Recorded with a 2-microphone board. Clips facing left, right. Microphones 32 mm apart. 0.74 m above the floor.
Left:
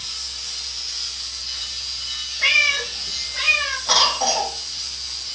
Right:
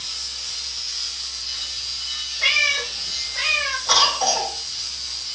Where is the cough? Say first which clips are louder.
Even; 10° left (ahead or behind), 1.7 m.